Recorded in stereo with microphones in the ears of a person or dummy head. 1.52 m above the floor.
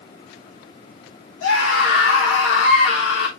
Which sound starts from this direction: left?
A scream, at 1.4 s.